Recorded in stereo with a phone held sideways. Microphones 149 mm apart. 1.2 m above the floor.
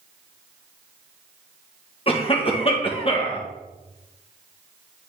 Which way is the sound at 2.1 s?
40° left (ahead or behind).